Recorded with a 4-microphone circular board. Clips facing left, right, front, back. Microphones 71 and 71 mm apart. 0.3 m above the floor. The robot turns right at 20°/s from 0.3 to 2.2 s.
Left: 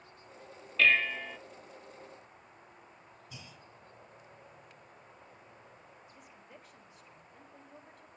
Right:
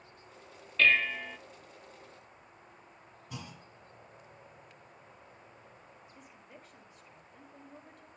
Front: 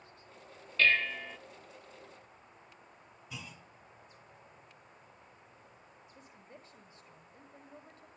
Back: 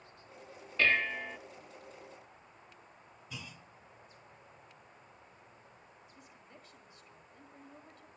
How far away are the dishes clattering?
About 0.5 m.